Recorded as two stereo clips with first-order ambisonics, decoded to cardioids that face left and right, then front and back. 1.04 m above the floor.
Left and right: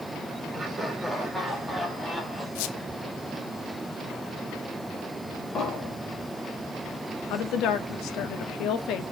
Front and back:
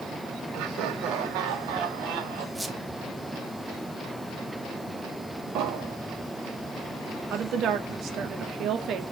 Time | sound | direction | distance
0.5 | laughter | 165° right | 3.5 m
2.5 | a squeak | 90° left | 0.8 m
5.5 | an explosion | 150° left | 4 m
7.3 | a woman speaking | 130° left | 1.8 m